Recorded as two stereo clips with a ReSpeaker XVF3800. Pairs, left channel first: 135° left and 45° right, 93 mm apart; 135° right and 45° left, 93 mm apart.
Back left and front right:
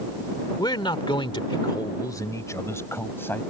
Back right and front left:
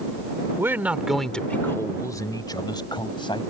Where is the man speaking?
105° left; by 3.4 s 160° right.